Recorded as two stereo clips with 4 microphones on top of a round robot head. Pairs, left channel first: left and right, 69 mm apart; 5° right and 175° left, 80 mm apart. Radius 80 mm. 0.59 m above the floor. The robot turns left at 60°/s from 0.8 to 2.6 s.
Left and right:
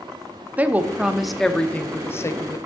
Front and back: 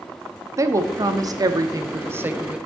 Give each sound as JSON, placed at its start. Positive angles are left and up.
{"t": 0.6, "sound": "a woman speaking", "azimuth_deg": -150, "distance_m": 1.0}